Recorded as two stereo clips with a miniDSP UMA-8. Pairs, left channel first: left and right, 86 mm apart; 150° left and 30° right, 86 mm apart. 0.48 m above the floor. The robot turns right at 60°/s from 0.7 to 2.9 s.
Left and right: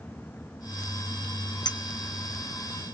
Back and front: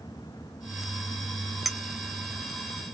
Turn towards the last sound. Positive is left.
turn(degrees=135)